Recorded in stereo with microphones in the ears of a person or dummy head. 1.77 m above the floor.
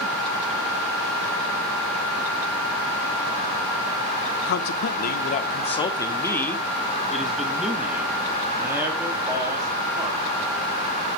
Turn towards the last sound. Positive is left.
turn(degrees=-25)  # may be behind; listen again after turning